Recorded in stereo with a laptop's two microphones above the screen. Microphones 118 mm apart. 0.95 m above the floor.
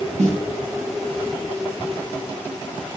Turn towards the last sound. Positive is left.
turn(degrees=-85)